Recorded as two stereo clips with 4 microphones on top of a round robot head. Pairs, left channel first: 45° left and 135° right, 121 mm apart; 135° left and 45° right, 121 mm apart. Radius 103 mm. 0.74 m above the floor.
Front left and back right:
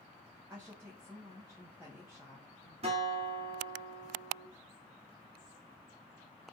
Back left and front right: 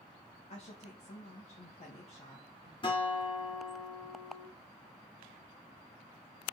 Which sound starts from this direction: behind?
A guitar, at 2.8 s.